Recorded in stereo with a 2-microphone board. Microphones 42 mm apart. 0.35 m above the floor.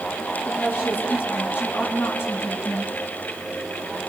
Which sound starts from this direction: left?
A woman speaking, at 0.5 s.